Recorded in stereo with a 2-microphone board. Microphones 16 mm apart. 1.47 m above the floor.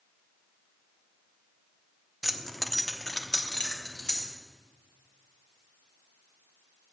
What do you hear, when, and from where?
2.2 s keys jangling: 10° right (ahead or behind), 0.6 m; by 4.3 s 65° left (ahead or behind), 1.9 m